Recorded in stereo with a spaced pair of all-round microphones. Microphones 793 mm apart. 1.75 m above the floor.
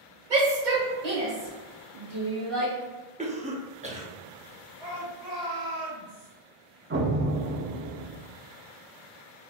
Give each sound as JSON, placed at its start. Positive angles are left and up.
{"t": 0.3, "sound": "a shout", "side_deg": -75, "distance_m": 1.5}
{"t": 3.2, "sound": "a cough", "side_deg": -10, "distance_m": 0.6}
{"t": 4.8, "sound": "a shout", "side_deg": -50, "distance_m": 1.1}
{"t": 6.9, "sound": "an explosion", "side_deg": -20, "distance_m": 0.5}